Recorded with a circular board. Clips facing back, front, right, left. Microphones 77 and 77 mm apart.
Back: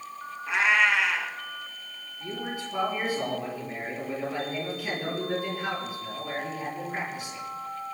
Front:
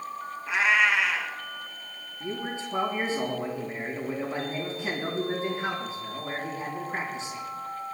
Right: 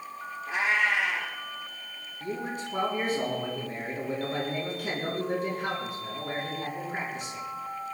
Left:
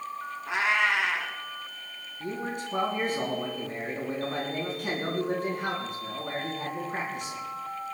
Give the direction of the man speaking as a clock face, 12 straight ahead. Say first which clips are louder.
Front 1 dB, even; 10 o'clock.